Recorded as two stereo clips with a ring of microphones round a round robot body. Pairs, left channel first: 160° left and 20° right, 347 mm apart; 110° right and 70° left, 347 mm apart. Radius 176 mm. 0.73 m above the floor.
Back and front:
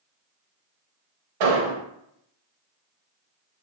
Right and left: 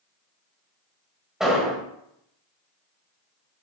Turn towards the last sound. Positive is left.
turn(degrees=-20)